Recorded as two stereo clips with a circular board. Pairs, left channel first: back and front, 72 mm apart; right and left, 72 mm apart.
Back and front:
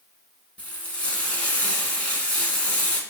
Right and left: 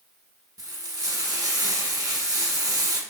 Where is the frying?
110° left, 1.0 m.